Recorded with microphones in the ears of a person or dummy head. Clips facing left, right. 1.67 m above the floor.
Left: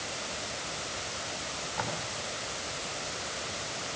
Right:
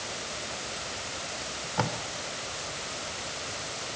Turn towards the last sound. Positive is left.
turn(degrees=-55)  # may be behind; listen again after turning